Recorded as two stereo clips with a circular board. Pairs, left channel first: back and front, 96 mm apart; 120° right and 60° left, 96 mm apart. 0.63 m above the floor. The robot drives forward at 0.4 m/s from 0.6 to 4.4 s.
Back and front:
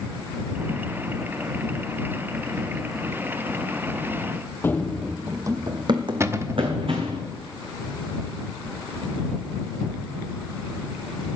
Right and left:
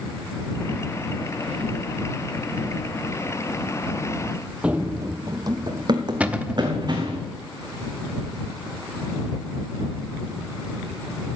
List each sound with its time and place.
4.6 s running footsteps: 130° left, 0.7 m; by 7.2 s 20° left, 2.5 m
6.2 s a cupboard door: straight ahead, 0.6 m